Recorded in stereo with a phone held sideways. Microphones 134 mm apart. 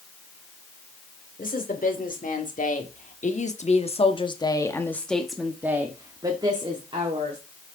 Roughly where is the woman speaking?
Left.